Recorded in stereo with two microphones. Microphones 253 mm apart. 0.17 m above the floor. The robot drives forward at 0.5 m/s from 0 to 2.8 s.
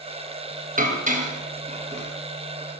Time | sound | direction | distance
0.8 | dishes clattering | 30° right (ahead or behind) | 2 m